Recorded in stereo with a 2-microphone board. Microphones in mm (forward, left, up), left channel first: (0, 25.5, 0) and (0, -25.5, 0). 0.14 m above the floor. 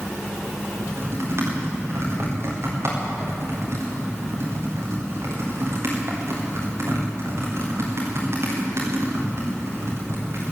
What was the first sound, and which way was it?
Typing on a keyboard, 60° right (ahead or behind).